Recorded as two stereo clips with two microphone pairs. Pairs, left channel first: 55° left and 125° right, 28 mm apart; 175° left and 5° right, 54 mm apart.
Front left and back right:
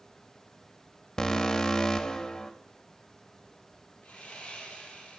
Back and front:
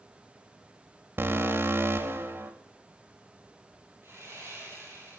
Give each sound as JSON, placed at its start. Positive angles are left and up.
{"t": 1.2, "sound": "an alarm", "azimuth_deg": 0, "distance_m": 1.0}
{"t": 4.0, "sound": "sawing", "azimuth_deg": 30, "distance_m": 3.5}